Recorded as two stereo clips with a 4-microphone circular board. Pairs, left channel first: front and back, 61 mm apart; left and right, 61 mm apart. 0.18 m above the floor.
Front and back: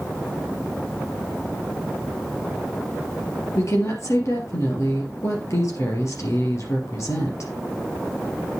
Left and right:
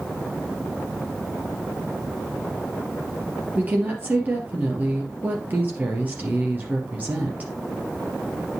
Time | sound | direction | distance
3.5 | a woman speaking | 30° right | 3 m